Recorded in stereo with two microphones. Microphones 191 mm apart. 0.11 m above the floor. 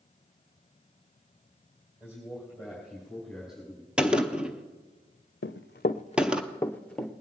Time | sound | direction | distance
2.0 | a man speaking | 15° right (ahead or behind) | 4 m
4.0 | a gunshot | 5° right (ahead or behind) | 0.7 m
5.4 | running footsteps | 80° left | 0.5 m